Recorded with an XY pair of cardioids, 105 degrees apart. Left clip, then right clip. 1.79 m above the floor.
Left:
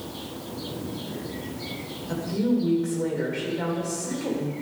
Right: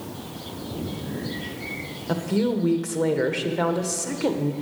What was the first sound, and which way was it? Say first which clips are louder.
A woman speaking: right 2 dB; 65° right.